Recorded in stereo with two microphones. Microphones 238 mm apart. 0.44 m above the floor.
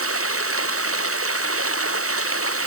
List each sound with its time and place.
0.0 s running water: 70° right (ahead or behind)